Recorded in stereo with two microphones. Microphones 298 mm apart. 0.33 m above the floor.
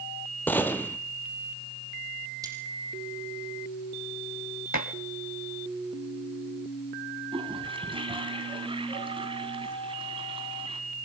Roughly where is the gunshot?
Centre.